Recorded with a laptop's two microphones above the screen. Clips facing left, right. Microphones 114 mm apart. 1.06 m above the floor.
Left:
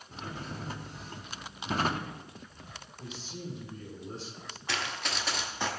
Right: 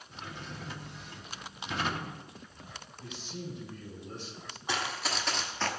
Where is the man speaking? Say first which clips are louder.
Even; 30° left (ahead or behind), 3 m.